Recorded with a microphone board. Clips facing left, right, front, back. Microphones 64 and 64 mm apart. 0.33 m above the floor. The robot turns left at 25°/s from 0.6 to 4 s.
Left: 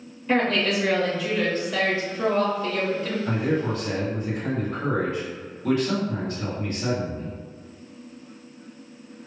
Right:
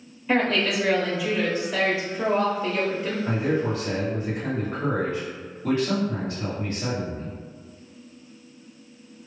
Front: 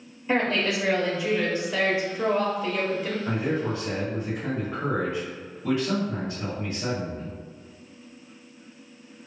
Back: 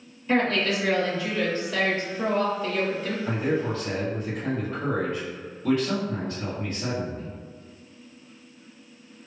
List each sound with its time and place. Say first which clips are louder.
0.3 s a woman speaking: even, back 1 dB; 15° right, 0.8 m; by 3.1 s 75° right, 0.8 m
3.2 s a man speaking: right 1 dB, back 3 dB; 50° right, 1.7 m; by 7.3 s 70° right, 1.7 m